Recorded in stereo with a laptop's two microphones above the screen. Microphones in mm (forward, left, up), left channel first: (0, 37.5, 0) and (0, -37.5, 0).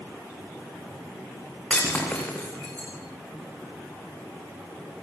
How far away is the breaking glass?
About 4.5 m.